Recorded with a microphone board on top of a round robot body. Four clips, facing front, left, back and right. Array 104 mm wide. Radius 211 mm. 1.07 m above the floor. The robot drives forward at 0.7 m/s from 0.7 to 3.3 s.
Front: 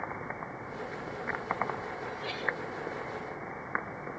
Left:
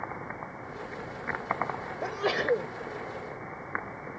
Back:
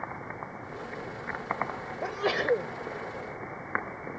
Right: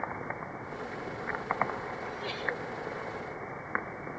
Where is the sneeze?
135° left.